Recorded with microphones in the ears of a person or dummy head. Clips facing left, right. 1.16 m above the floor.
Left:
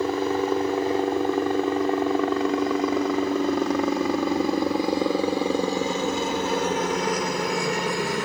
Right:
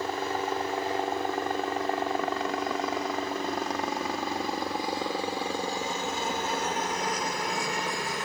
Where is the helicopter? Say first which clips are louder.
Left 8 dB; 65° left (ahead or behind).